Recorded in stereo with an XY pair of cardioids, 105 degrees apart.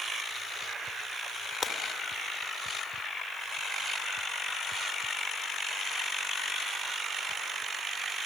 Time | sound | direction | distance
1.6 | breaking glass | 40° left | 2.5 m